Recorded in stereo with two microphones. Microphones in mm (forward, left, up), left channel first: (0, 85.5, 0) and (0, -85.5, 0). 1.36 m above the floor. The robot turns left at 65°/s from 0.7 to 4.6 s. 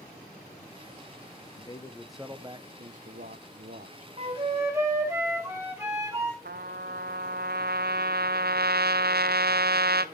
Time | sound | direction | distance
1.5 | a man speaking | 40° left | 0.9 m
4.2 | a flute | 45° right (ahead or behind) | 2.5 m
6.5 | a trumpet | 80° right | 0.5 m